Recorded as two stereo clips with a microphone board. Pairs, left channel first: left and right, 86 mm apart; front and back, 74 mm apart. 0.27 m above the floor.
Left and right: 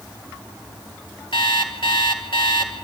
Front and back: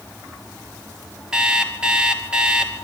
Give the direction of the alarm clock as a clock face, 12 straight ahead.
9 o'clock.